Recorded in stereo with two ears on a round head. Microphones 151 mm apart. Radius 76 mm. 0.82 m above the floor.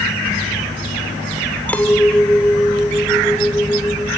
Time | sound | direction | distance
1.7 | a clink | 10° left (ahead or behind) | ?